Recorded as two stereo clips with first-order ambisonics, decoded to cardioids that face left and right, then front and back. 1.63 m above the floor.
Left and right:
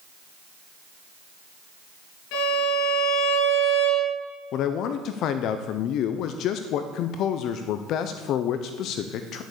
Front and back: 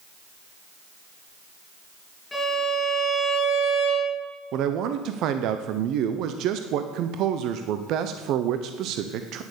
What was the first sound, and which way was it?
A violin, 80° left.